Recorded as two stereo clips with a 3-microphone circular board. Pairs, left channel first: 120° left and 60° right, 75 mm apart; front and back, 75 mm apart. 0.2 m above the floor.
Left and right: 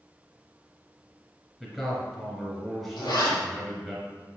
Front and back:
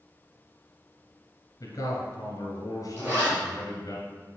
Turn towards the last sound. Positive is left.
turn(degrees=120)